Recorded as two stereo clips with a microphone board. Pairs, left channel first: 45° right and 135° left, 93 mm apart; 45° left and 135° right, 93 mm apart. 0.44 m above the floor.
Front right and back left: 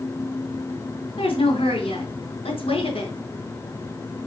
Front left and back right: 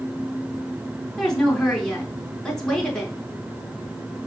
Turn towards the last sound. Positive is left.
turn(degrees=-40)